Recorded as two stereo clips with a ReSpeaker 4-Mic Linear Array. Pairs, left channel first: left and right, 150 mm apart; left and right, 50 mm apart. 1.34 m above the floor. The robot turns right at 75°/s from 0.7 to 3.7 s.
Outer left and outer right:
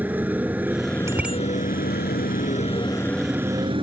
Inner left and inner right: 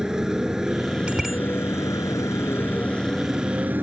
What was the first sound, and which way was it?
A motorcycle, 10° right.